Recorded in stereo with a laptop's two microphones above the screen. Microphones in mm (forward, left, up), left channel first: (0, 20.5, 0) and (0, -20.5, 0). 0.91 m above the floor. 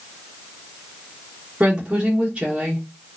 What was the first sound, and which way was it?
A woman speaking, 25° right (ahead or behind).